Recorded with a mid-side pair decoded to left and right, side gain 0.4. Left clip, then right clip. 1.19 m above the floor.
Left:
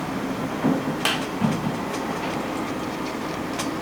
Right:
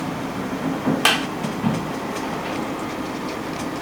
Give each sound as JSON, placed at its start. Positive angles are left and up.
{"t": 1.1, "sound": "a clap", "azimuth_deg": -40, "distance_m": 1.3}